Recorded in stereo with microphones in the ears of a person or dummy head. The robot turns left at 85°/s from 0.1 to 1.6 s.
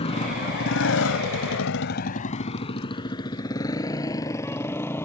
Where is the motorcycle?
30° left (ahead or behind); by 5.0 s 10° left (ahead or behind).